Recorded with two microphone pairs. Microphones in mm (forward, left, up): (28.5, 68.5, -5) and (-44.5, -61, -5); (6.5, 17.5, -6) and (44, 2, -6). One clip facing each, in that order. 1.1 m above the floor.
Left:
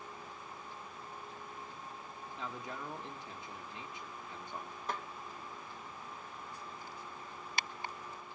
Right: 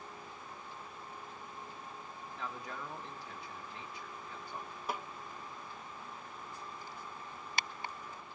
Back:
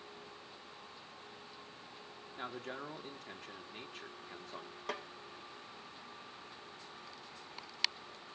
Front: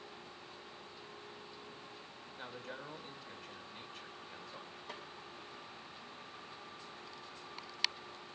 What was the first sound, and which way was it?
A man speaking, 130° left.